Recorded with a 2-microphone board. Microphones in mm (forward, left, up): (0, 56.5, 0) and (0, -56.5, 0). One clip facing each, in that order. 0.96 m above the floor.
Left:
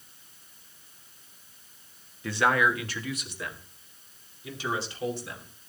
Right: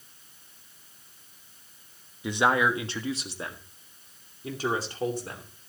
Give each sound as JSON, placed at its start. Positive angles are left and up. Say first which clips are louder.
{"t": 2.2, "sound": "a man speaking", "louder": "right 1 dB", "side_deg": -15, "distance_m": 1.3}